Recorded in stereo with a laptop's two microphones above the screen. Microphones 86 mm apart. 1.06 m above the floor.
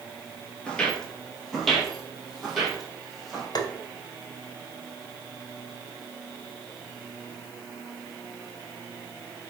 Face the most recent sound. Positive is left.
turn(degrees=50)  # may be behind; listen again after turning